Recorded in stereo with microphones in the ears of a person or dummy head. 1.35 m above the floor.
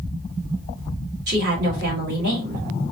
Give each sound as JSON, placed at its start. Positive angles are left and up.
{"t": 1.3, "sound": "a woman speaking", "side_deg": -65, "distance_m": 1.9}